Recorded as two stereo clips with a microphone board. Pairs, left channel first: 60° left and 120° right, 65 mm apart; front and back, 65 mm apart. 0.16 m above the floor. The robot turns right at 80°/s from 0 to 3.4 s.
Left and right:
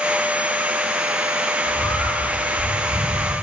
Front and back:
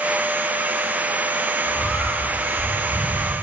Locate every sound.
1.6 s a bird: 45° left, 5.5 m; by 3.3 s straight behind, 5.5 m